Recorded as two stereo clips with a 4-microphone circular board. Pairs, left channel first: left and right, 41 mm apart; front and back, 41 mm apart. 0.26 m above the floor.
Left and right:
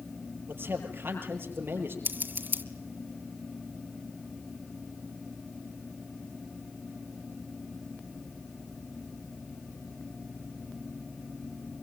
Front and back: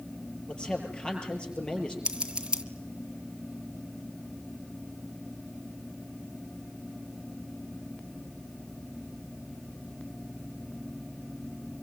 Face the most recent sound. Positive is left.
turn(degrees=-115)